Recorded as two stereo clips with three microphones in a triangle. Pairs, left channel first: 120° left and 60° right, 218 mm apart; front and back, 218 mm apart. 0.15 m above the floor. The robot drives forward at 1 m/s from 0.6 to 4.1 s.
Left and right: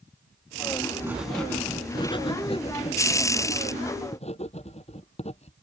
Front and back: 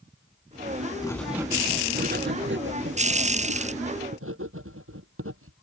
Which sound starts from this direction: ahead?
Writing, at 1.0 s.